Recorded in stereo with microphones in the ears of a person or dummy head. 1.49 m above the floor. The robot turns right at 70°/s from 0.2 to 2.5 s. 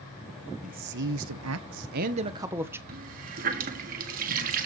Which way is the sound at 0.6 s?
145° right.